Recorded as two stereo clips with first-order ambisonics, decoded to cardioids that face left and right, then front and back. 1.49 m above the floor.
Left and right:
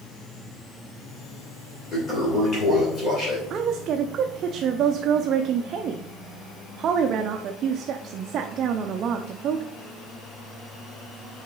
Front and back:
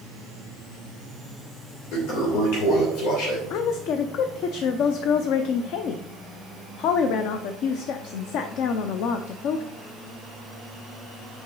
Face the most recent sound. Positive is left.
turn(degrees=-35)